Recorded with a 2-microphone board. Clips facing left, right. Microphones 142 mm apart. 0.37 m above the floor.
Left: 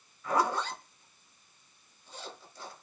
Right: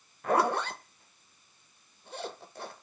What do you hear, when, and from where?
0.2 s a zipper: 65° right (ahead or behind), 0.7 m